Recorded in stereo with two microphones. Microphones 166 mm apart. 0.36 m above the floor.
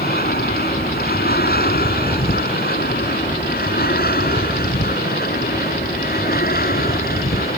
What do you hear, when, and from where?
0.0 s an aircraft: 70° left (ahead or behind); by 7.6 s 65° left (ahead or behind)